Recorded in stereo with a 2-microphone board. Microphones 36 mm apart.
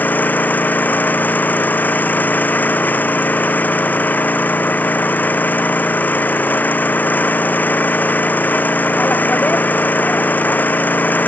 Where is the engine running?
55° left (ahead or behind).